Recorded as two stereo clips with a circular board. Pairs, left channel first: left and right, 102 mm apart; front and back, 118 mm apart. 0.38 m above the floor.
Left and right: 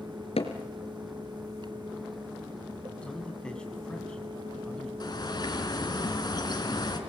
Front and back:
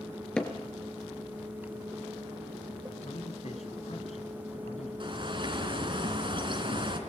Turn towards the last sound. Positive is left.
turn(degrees=135)